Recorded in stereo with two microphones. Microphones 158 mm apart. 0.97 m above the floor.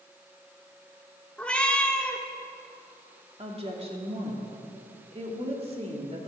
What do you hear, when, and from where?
1.4 s a cat meowing: 5° left (ahead or behind), 1.1 m
3.4 s a woman speaking: 40° right (ahead or behind), 2 m